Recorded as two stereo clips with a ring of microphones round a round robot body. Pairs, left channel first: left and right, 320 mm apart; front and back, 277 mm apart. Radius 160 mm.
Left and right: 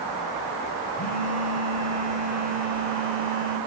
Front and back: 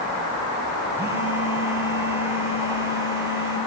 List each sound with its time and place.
1.0 s a phone buzzing: 110° left, 1.1 m